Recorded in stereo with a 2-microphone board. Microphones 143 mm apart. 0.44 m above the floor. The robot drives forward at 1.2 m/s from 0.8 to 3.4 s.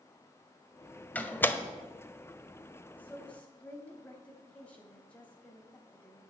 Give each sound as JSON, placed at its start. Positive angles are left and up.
{"t": 1.1, "sound": "a door slam", "side_deg": 10, "distance_m": 1.4}
{"t": 3.0, "sound": "a woman speaking", "side_deg": 10, "distance_m": 2.5}